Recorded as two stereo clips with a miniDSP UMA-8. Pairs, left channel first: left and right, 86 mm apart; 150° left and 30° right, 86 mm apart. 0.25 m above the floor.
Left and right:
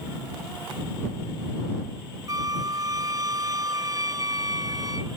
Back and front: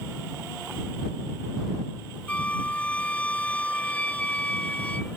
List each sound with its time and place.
2.3 s a flute: 135° right